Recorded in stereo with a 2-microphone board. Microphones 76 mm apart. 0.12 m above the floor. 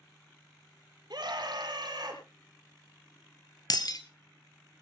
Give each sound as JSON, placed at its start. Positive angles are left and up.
{"t": 1.1, "sound": "a scream", "side_deg": -65, "distance_m": 3.5}
{"t": 3.7, "sound": "breaking glass", "side_deg": 60, "distance_m": 1.4}